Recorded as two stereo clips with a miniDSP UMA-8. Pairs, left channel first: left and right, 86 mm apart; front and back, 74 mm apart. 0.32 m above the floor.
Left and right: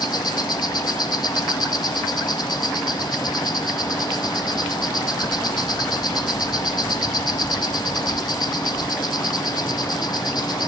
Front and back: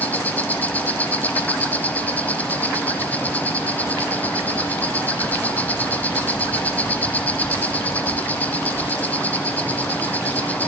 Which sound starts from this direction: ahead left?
An insect, at 0.0 s.